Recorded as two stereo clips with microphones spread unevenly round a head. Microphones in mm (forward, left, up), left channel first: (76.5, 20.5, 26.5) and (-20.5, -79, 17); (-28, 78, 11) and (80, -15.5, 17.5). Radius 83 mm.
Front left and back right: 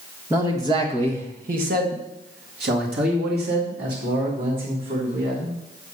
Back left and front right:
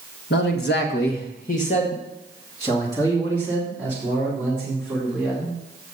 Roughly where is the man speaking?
Behind left.